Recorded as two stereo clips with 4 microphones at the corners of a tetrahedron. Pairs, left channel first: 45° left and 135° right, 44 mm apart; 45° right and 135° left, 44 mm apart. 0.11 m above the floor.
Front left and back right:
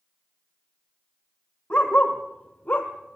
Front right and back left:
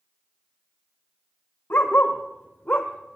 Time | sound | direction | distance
1.7 | a dog barking | 20° right | 2.5 m